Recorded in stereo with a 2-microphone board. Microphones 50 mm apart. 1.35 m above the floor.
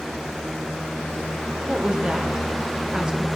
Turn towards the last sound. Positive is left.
turn(degrees=-15)  # may be behind; listen again after turning